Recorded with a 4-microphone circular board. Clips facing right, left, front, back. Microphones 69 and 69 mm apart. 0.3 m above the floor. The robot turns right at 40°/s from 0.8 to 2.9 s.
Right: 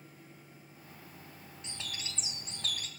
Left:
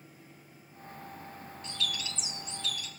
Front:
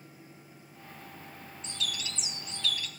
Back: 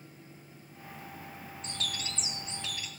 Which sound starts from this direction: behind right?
A bird, at 1.6 s.